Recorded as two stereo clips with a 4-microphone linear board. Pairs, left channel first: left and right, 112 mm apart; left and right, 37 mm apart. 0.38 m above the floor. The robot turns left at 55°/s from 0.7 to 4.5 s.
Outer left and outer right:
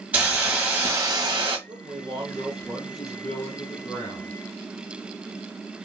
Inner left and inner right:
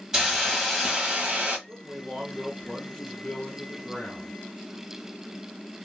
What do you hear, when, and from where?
0.1 s a hiss: 15° right, 1.3 m; by 1.6 s 60° right, 1.3 m
1.7 s a man speaking: 110° right, 1.1 m; by 4.3 s 105° left, 1.1 m